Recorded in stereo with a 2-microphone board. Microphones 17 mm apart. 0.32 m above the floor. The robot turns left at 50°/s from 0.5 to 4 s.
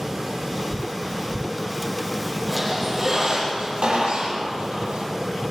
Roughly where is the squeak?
Ahead.